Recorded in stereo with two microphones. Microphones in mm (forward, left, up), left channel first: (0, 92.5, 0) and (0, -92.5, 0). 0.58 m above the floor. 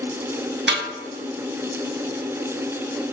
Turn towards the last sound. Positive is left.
turn(degrees=-80)